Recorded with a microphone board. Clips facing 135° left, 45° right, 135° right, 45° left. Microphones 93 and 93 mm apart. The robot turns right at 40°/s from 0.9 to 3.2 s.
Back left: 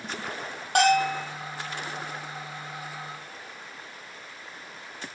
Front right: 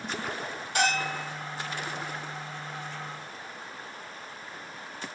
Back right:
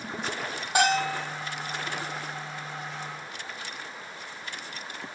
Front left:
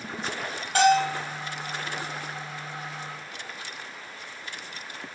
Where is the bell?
155° left, 4.5 m; by 1.3 s 165° left, 4.5 m.